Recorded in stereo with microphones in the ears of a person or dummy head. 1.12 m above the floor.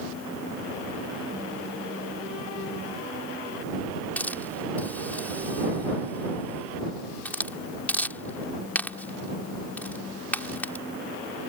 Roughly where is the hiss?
Centre.